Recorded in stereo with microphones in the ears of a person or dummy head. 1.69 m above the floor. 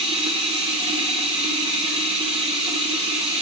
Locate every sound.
0.0 s running water: 35° right (ahead or behind), 0.7 m